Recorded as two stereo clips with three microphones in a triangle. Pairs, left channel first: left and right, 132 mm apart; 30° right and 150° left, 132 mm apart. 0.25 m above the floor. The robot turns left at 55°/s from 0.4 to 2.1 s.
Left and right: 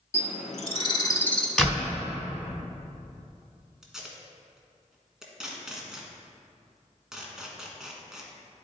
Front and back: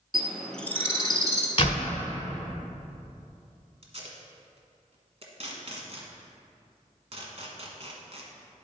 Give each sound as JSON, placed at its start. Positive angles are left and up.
{"t": 0.1, "sound": "a bird", "azimuth_deg": 60, "distance_m": 0.8}
{"t": 1.6, "sound": "a door slam", "azimuth_deg": 5, "distance_m": 1.4}
{"t": 3.8, "sound": "tape being pulled", "azimuth_deg": -175, "distance_m": 1.2}